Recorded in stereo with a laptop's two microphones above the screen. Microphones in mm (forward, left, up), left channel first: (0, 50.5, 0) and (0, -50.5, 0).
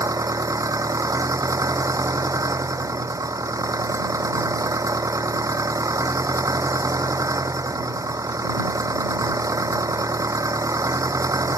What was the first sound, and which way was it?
An engine running, 35° right (ahead or behind).